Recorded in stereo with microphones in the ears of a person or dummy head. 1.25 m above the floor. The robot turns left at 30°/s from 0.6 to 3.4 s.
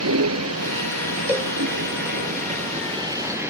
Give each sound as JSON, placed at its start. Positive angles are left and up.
{"t": 0.0, "sound": "a vehicle", "azimuth_deg": -85}
{"t": 1.3, "sound": "a cowbell", "side_deg": -15}